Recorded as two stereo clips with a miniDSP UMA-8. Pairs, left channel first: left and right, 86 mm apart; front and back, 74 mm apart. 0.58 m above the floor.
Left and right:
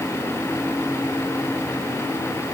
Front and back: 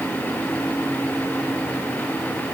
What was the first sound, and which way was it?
Only background noise.